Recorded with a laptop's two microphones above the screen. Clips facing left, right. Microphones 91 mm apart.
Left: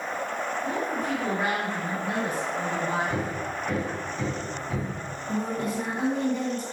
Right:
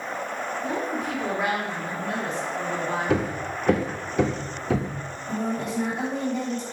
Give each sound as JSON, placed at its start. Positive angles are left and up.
{"t": 0.6, "sound": "a woman speaking", "side_deg": -10, "distance_m": 2.5}
{"t": 3.1, "sound": "hammering", "side_deg": -70, "distance_m": 0.7}
{"t": 5.3, "sound": "a woman speaking", "side_deg": 10, "distance_m": 3.0}